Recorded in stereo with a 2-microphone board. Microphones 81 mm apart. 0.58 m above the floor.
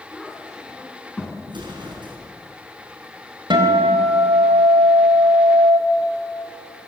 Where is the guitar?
70° right (ahead or behind), 4 m.